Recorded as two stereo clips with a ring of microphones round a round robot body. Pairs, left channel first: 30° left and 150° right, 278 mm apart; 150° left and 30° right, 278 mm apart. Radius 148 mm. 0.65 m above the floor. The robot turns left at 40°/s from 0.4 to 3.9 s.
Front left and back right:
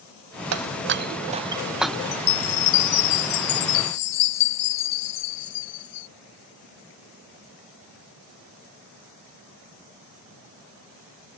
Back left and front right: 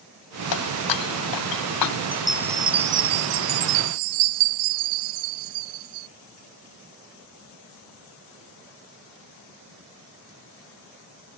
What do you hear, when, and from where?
0.5 s breaking glass: 175° left; by 2.0 s 115° left
2.1 s a chime: 65° left; by 6.1 s 5° right